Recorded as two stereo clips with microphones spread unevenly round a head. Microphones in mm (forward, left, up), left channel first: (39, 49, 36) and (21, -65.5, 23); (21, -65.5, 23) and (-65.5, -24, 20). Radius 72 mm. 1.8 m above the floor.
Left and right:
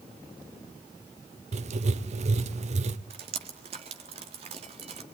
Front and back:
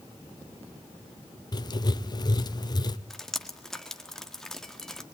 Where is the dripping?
105° right, 1.5 m.